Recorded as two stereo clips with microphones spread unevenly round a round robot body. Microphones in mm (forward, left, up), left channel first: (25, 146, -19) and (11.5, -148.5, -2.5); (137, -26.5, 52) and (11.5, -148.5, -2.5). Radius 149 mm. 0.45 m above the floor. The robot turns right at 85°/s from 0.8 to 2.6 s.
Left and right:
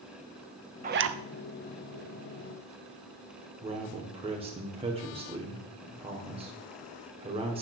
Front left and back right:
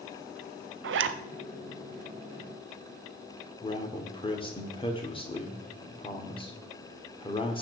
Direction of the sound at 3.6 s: 25° right.